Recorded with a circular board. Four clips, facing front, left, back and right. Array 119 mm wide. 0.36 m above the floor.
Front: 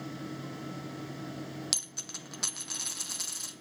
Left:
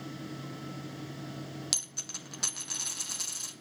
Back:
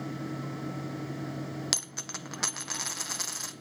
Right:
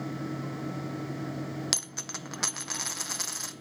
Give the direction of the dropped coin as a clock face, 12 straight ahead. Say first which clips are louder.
Right 7 dB, back 6 dB; 4 o'clock.